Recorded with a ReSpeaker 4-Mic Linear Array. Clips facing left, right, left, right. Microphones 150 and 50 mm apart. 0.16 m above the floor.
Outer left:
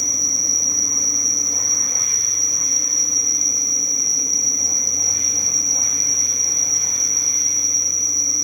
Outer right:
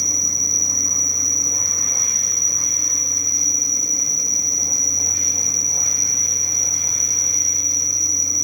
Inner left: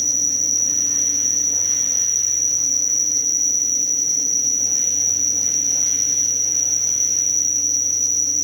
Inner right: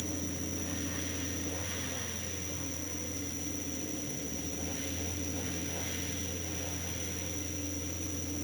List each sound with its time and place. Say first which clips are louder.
0.0 s an insect: even, inner left 7 dB; 70° left (ahead or behind)